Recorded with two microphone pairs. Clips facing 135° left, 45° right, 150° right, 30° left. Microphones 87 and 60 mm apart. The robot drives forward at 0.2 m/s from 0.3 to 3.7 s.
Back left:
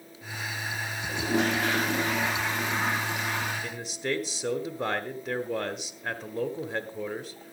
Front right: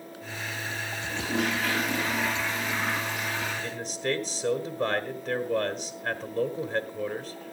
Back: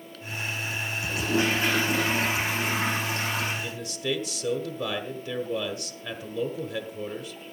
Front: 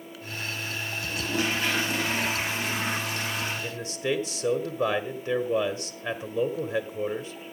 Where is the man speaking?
55° left, 1.0 m.